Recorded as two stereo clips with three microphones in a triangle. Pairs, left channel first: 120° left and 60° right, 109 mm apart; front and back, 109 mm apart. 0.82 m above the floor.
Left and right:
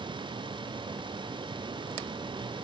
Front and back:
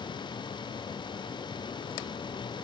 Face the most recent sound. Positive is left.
No sound to turn to.